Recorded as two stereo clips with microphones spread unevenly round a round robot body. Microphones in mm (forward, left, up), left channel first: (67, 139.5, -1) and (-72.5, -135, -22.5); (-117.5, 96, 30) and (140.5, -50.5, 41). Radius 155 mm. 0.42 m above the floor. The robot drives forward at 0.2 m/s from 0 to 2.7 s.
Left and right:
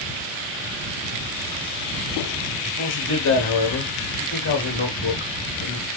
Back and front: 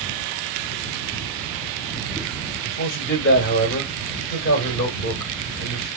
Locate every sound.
2.6 s a man speaking: 110° left, 2 m